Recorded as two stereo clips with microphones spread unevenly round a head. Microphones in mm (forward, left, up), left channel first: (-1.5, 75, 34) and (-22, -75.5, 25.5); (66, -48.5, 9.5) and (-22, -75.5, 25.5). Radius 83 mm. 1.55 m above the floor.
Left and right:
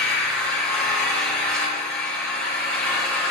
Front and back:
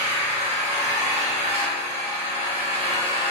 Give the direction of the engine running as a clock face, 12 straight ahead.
6 o'clock.